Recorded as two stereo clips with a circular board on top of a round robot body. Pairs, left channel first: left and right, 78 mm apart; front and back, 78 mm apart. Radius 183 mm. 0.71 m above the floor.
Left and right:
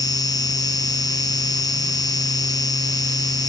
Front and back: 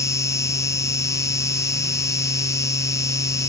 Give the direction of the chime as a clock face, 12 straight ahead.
I don't hear a chime.